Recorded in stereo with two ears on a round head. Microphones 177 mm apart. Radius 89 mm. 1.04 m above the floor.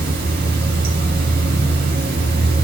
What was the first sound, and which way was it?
Running water, 50° right (ahead or behind).